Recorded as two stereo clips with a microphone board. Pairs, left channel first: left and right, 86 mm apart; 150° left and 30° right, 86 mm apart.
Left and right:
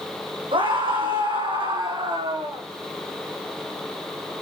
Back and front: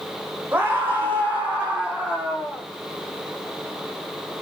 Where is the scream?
100° right, 8 m; by 2.6 s 110° right, 9 m.